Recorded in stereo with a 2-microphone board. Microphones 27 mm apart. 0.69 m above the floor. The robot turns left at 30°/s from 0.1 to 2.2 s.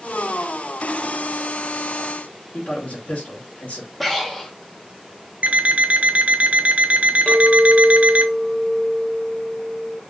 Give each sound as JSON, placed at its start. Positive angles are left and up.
{"t": 2.5, "sound": "a man speaking", "side_deg": 65, "distance_m": 1.5}
{"t": 4.0, "sound": "breathing", "side_deg": 5, "distance_m": 0.8}
{"t": 5.4, "sound": "an alarm clock", "side_deg": -55, "distance_m": 0.5}
{"t": 7.3, "sound": "a clink", "side_deg": 40, "distance_m": 1.3}